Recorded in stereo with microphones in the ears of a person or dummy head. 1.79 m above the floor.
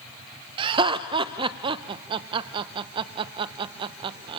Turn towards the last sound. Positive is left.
turn(degrees=-30)  # may be behind; listen again after turning